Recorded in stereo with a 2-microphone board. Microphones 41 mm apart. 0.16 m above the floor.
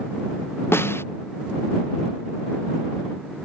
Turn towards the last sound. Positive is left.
turn(degrees=80)